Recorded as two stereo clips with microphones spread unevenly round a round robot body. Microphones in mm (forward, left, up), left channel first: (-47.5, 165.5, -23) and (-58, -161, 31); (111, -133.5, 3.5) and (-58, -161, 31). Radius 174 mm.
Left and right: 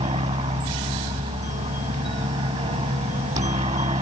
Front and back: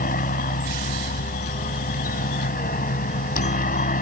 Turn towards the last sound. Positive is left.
turn(degrees=-15)